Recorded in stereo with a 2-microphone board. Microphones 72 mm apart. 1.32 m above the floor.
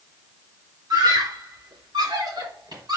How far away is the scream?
About 4 m.